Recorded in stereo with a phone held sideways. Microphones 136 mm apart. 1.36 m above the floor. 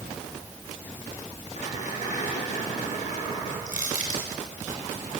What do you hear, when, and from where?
1.6 s a squeak: 60° left (ahead or behind), 10 m
3.7 s crushing: 70° left (ahead or behind), 7 m